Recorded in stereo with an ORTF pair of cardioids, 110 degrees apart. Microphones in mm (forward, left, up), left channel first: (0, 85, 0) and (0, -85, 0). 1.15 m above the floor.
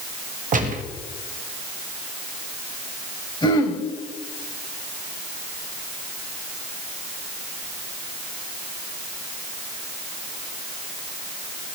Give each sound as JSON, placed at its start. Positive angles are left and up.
{"t": 0.5, "sound": "a gunshot", "azimuth_deg": -50, "distance_m": 1.4}
{"t": 3.4, "sound": "throat clearing", "azimuth_deg": 30, "distance_m": 3.5}